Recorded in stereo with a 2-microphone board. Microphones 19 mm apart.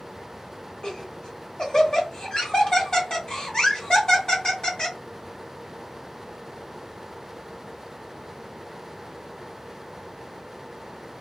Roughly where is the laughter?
Left.